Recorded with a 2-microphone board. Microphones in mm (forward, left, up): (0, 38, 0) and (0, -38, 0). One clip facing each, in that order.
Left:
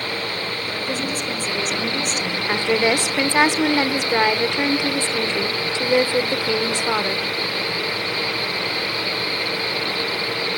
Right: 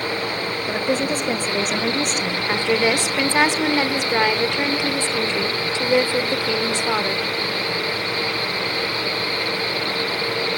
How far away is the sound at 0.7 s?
About 1.7 m.